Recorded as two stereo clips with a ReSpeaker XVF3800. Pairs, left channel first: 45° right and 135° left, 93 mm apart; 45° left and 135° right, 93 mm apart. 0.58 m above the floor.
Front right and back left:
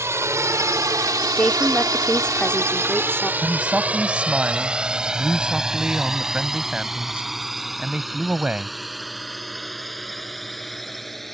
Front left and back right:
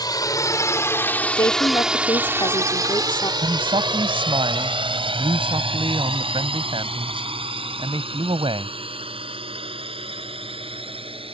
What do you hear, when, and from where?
0.0 s a drone: 80° left; by 11.3 s 130° right
1.4 s a woman speaking: 30° left
3.4 s a man speaking: 145° right